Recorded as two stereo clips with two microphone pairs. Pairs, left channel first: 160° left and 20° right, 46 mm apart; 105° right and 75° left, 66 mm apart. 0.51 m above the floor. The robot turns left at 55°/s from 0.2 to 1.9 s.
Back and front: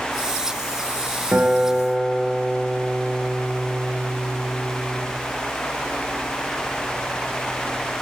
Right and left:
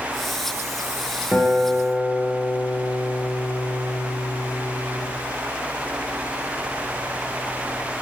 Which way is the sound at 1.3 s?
45° right.